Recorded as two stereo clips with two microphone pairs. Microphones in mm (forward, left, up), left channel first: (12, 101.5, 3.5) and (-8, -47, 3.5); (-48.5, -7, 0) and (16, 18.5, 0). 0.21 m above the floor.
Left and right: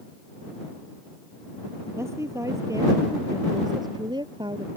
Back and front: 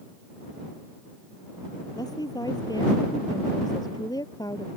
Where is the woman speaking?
170° right; by 4.7 s 155° right.